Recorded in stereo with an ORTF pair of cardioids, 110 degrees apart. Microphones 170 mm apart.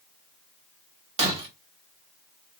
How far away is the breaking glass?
About 1.6 m.